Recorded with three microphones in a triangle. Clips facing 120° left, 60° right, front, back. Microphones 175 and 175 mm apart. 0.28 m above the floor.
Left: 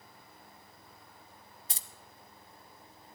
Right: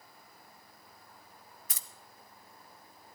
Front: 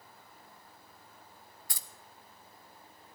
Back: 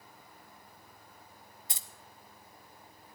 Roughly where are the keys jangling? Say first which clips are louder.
Left 4 dB, back 2 dB; behind left.